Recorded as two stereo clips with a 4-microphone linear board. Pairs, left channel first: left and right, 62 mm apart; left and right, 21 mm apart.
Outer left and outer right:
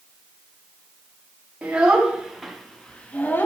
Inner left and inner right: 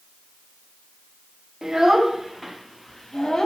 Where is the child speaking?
20° right (ahead or behind), 1.7 m; by 3.5 s 35° left (ahead or behind), 1.1 m.